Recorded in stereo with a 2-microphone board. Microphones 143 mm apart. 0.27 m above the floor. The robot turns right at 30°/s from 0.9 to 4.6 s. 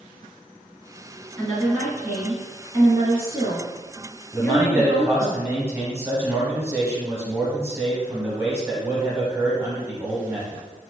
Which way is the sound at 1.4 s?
Straight behind.